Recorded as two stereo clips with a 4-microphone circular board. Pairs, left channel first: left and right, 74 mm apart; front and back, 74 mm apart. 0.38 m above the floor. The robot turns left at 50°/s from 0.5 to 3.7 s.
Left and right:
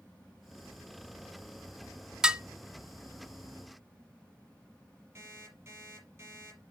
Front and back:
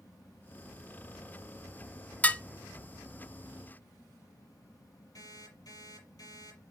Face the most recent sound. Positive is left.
turn(degrees=-40)